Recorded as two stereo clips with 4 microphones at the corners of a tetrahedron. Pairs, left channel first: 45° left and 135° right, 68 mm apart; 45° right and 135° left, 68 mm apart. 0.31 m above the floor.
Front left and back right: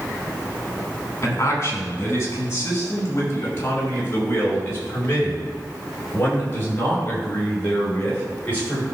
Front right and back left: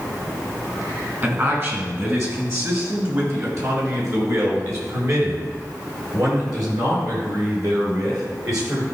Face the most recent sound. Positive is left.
turn(degrees=110)